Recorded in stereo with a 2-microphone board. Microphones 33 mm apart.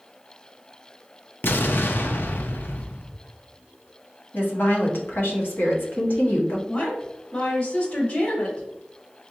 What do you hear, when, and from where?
1.4 s an explosion: 70° left (ahead or behind), 0.5 m
4.3 s a woman speaking: 75° left (ahead or behind), 1.3 m
6.7 s a woman speaking: 60° left (ahead or behind), 2 m